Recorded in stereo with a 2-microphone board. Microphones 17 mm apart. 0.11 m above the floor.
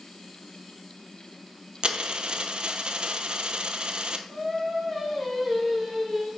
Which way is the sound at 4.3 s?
10° left (ahead or behind).